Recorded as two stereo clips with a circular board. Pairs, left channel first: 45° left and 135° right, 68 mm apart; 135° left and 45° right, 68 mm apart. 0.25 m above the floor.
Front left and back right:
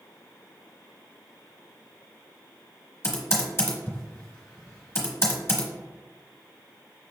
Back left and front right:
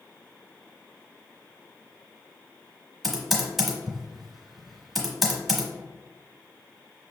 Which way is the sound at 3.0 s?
40° left.